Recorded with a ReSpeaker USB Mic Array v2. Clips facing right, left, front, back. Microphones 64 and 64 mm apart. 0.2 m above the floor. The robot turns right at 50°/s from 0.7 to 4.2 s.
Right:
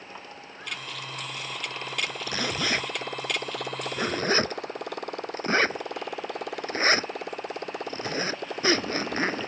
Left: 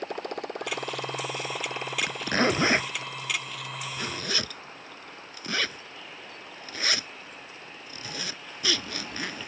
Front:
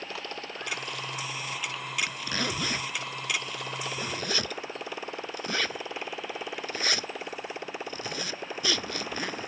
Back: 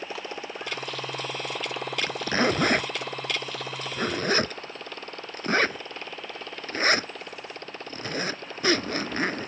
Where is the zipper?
115° left; by 9.5 s 135° right.